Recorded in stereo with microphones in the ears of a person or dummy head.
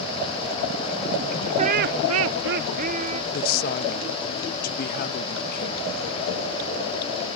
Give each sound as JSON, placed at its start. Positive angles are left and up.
{"t": 1.6, "sound": "laughter", "side_deg": -35}
{"t": 3.3, "sound": "a woman speaking", "side_deg": 50}